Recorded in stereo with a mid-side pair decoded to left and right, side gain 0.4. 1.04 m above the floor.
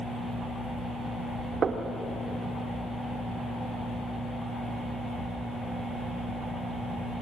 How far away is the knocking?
About 2 m.